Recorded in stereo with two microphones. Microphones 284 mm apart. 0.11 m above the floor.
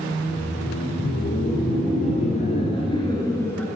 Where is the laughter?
40° left (ahead or behind), 3 m; by 3.7 s 5° left (ahead or behind), 1.5 m.